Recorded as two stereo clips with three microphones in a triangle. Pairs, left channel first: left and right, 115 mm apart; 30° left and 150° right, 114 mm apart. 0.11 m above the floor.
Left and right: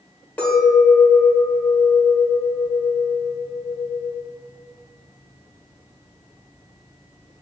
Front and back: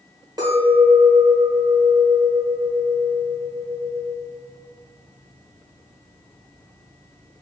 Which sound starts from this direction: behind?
A clink, at 0.4 s.